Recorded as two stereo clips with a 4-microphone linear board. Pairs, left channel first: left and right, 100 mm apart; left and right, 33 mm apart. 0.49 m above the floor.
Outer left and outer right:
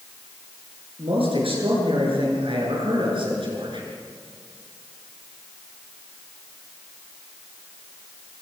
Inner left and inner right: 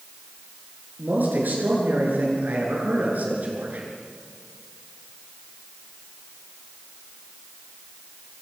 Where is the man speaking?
70° right (ahead or behind), 7.5 m; by 3.9 s 60° right (ahead or behind), 7 m.